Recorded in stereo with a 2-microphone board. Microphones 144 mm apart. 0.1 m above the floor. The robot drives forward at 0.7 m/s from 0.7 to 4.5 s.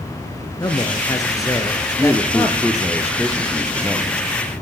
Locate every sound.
0.6 s a man speaking: 25° left (ahead or behind), 1.9 m; by 2.8 s 20° left (ahead or behind), 2.5 m
2.0 s a man speaking: 5° right (ahead or behind), 2.5 m